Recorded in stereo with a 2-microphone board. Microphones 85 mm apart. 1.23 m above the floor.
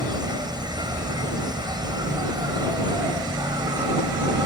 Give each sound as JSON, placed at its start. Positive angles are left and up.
{"t": 0.0, "sound": "an insect", "side_deg": -55}